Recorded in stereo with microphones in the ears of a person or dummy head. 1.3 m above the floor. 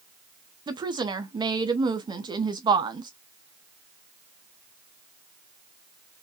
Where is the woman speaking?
25° right (ahead or behind), 0.8 m.